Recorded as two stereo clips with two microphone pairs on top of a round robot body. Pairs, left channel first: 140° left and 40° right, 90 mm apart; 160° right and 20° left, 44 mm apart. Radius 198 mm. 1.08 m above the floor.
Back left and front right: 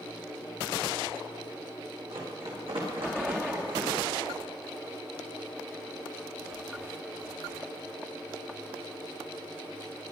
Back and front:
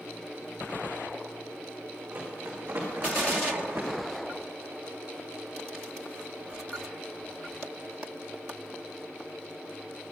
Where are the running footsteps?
30° right, 6 m; by 3.9 s 20° right, 6 m.